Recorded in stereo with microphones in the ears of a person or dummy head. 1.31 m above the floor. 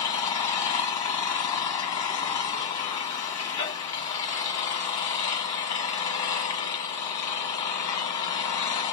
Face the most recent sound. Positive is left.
turn(degrees=15)  # may be behind; listen again after turning